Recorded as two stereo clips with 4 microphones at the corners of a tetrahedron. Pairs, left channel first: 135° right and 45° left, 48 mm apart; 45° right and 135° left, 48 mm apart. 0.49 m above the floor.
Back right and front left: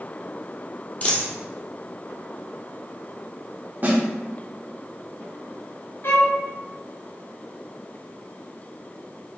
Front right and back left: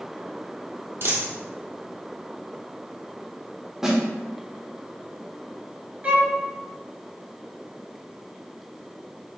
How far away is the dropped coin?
About 1.7 m.